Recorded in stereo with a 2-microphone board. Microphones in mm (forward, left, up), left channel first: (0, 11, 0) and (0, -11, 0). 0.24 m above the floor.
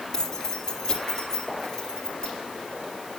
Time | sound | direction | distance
0.1 | keys jangling | 25° left (ahead or behind) | 4.5 m